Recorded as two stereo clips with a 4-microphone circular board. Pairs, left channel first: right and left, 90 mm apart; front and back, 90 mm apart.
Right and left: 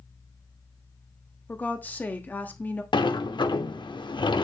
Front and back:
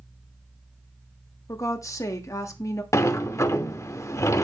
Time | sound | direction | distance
1.5 | a woman speaking | 30° right | 1.0 m
2.9 | a sliding door | 60° right | 0.6 m